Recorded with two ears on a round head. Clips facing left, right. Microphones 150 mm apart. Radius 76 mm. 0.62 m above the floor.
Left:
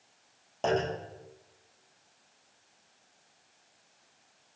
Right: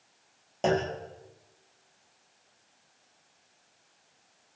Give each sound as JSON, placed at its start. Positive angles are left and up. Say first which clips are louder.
{"t": 0.6, "sound": "a clunk", "louder": "right 2 dB", "side_deg": -20, "distance_m": 7.5}